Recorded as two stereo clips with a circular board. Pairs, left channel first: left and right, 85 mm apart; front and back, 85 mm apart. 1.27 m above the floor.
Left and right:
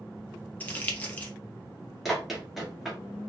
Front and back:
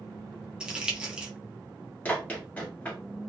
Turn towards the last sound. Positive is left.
turn(degrees=0)